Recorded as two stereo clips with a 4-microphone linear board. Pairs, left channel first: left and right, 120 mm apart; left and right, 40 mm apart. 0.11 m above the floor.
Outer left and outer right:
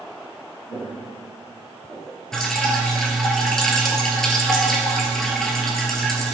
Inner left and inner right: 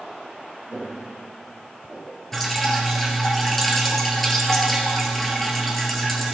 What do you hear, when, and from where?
0.7 s footsteps: 35° left (ahead or behind), 2.5 m; by 2.2 s 10° left (ahead or behind), 3.5 m
2.3 s dripping: 5° left (ahead or behind), 1.4 m